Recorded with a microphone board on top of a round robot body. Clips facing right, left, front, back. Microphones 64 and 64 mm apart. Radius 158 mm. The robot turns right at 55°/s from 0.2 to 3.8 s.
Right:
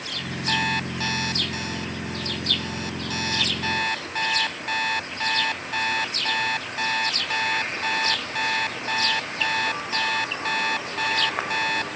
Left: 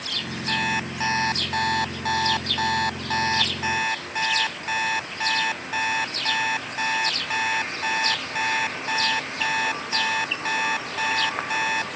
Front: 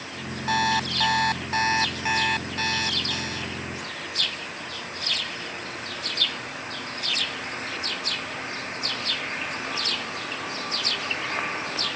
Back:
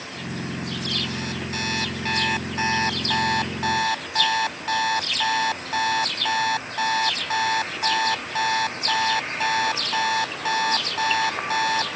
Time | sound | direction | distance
0.5 | an alarm clock | 10° right | ?